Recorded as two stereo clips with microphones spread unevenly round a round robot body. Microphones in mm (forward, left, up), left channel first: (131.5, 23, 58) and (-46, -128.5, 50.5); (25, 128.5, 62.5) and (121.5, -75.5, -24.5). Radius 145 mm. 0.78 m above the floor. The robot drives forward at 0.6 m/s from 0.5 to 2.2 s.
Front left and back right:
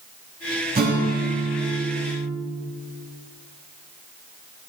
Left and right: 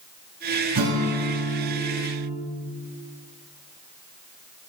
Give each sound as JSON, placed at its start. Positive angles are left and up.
{"t": 0.8, "sound": "a guitar", "azimuth_deg": -90, "distance_m": 4.5}